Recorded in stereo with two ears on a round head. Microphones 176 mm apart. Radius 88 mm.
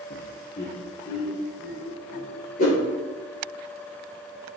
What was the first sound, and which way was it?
Laughter, 40° left (ahead or behind).